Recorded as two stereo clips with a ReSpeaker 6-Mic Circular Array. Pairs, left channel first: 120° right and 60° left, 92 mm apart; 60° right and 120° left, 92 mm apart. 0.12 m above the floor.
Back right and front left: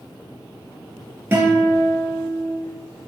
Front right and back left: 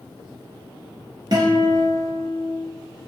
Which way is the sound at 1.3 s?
115° left.